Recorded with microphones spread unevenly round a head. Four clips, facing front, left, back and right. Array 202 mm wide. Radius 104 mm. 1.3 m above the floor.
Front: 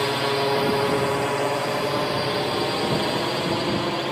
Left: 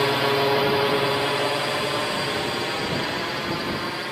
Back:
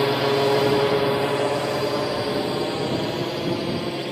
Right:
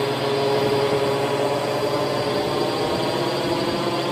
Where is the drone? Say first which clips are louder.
Even, back 3 dB; 170° right; by 4.1 s 90° right.